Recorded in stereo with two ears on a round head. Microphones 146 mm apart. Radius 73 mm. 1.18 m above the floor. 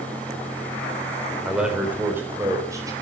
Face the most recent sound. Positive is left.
turn(degrees=-20)  # may be behind; listen again after turning